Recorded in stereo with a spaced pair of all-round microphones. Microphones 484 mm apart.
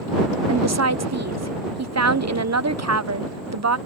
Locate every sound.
0.5 s a woman speaking: 35° right (ahead or behind)